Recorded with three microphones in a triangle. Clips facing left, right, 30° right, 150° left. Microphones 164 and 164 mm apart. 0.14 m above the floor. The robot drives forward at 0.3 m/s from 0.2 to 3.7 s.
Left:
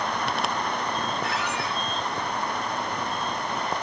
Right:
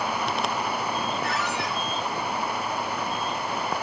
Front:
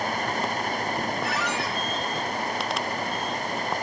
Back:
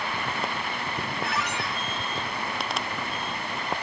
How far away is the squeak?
About 5.5 m.